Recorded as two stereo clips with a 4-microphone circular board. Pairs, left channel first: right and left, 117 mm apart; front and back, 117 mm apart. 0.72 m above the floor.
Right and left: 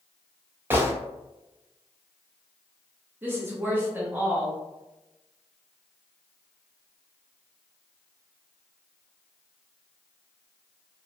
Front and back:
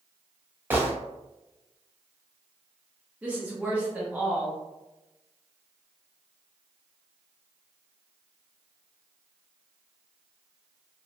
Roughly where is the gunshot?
Behind left.